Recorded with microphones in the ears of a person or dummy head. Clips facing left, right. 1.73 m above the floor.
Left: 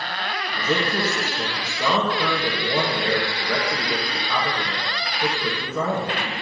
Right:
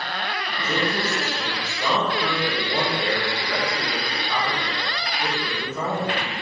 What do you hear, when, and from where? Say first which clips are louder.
0.6 s a man speaking: left 2 dB; 65° left (ahead or behind), 1.9 m